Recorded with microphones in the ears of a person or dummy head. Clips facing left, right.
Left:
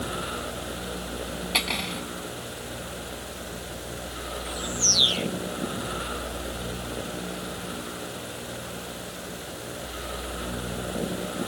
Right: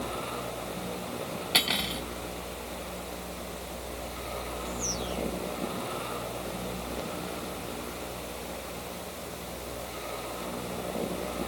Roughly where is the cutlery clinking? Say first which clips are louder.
Left 1 dB; centre.